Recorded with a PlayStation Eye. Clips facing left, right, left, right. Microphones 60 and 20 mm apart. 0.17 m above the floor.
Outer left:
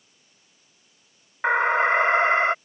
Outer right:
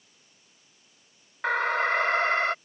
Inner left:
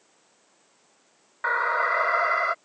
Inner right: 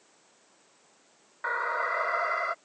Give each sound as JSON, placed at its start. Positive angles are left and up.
{"t": 1.4, "sound": "an alarm", "side_deg": 20}